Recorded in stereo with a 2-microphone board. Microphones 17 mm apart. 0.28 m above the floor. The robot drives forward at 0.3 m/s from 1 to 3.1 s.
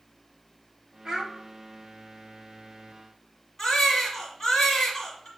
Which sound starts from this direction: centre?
A baby crying, at 3.6 s.